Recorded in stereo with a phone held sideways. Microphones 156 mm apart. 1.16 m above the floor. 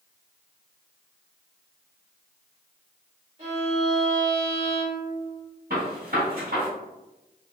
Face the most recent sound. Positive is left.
turn(degrees=-80)